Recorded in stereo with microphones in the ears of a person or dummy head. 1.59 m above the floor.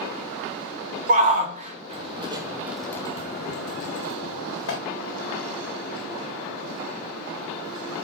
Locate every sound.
1.1 s a shout: 40° right (ahead or behind), 1.5 m; by 4.8 s 70° left (ahead or behind), 1.3 m